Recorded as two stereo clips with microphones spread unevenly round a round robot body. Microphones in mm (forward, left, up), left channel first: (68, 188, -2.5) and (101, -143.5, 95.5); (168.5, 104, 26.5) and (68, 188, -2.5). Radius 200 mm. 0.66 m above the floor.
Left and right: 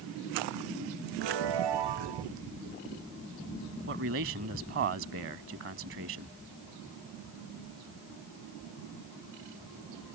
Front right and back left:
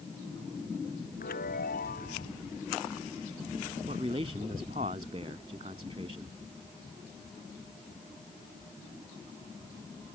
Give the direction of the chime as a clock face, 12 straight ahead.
3 o'clock.